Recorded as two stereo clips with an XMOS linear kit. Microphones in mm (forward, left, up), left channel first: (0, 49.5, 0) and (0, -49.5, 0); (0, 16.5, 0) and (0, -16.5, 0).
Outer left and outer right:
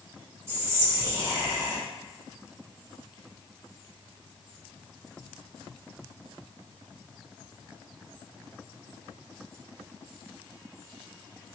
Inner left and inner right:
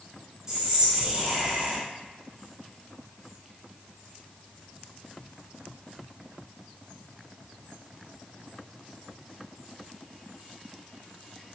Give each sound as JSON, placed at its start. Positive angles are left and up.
{"t": 0.5, "sound": "whispering", "side_deg": -25, "distance_m": 1.2}